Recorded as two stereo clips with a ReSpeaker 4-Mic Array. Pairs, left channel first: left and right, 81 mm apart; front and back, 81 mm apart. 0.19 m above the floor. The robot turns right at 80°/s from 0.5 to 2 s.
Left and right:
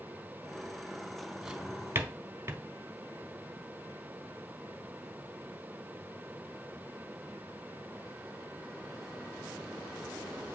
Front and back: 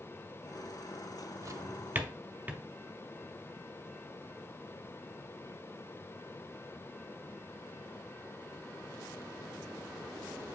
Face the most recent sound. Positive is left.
turn(degrees=-125)